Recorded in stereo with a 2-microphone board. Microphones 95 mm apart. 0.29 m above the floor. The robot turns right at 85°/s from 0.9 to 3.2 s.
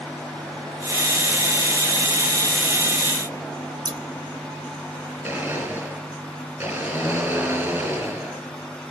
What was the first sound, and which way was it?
Scissors, 45° right (ahead or behind).